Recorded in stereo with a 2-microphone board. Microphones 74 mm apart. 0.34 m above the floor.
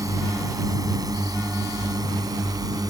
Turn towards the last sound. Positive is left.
turn(degrees=-60)  # may be behind; listen again after turning